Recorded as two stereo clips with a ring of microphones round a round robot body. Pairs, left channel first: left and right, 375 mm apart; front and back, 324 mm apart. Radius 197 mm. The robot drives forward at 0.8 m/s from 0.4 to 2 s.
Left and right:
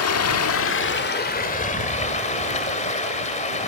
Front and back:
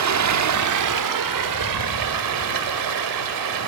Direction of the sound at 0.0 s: 140° left.